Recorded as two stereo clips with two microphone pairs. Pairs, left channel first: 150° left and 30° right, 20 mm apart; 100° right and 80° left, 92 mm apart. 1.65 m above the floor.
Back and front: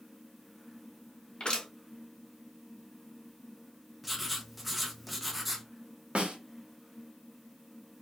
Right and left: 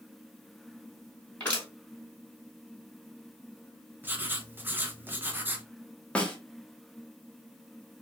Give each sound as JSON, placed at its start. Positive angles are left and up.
{"t": 1.4, "sound": "crushing", "azimuth_deg": -175, "distance_m": 2.5}
{"t": 4.0, "sound": "writing", "azimuth_deg": 50, "distance_m": 0.8}
{"t": 6.2, "sound": "a snare drum", "azimuth_deg": -25, "distance_m": 1.1}